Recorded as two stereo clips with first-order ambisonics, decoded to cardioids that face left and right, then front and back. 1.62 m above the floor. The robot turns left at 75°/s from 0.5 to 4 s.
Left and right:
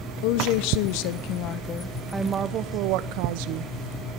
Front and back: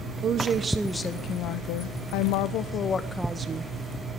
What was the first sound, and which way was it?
A woman speaking, 115° left.